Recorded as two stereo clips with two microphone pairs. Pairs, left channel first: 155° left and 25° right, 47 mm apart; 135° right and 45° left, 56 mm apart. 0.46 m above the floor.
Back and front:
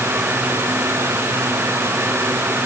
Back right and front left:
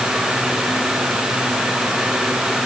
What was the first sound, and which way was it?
Only background noise.